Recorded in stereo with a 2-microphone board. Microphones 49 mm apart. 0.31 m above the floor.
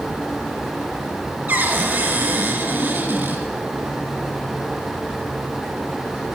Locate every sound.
1.5 s a cupboard door: 35° right (ahead or behind), 2.0 m